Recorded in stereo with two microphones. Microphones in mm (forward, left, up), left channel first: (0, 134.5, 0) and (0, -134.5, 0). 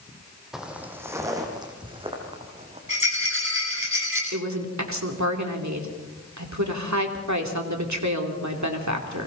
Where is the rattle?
50° right (ahead or behind), 9.5 m.